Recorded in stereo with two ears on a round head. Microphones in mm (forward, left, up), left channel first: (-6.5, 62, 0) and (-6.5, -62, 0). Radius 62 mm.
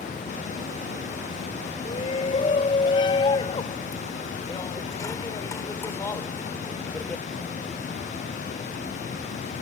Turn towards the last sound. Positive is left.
turn(degrees=10)  # may be behind; listen again after turning